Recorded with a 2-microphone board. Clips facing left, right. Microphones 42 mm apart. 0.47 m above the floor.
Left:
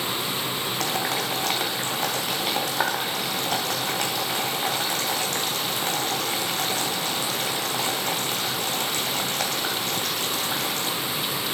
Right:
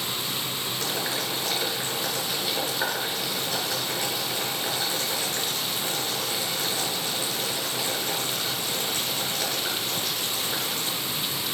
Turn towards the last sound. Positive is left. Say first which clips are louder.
# left 3 dB
turn(degrees=65)  # may be behind; listen again after turning